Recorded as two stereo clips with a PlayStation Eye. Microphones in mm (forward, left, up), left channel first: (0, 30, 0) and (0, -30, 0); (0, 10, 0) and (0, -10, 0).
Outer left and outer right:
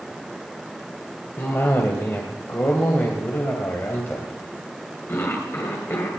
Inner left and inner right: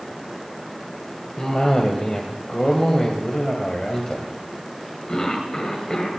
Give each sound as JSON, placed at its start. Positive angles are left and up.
{"t": 1.4, "sound": "a cough", "side_deg": 40, "distance_m": 2.0}